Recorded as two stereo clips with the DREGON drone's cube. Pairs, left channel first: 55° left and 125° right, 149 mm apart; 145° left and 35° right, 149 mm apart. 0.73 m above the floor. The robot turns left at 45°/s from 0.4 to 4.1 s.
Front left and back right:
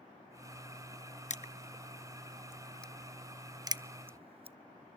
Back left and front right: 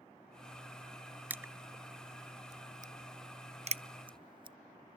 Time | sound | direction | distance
1.3 | crushing | 40° left | 0.6 m